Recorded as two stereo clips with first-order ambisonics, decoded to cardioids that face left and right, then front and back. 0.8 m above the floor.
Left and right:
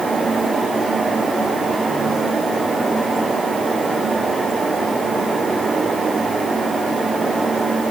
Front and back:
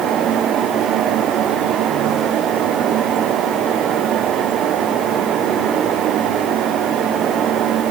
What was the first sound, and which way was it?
Only background noise.